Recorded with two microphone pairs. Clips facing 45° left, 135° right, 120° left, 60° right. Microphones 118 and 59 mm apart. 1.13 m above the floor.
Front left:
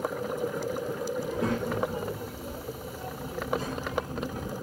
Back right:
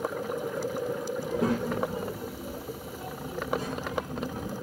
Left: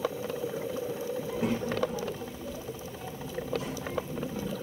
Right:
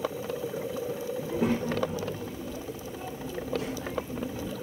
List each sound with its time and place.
1.2 s a child speaking: 85° right, 1.0 m; by 4.5 s 75° right, 3 m